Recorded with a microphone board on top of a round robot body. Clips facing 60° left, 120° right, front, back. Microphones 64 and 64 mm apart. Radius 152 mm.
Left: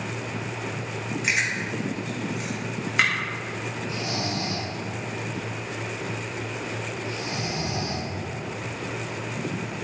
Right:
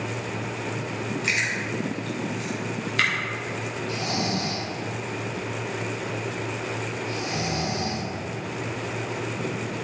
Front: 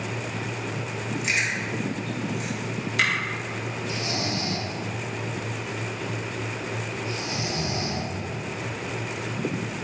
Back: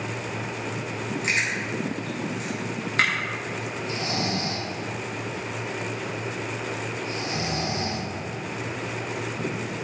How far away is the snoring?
About 2 m.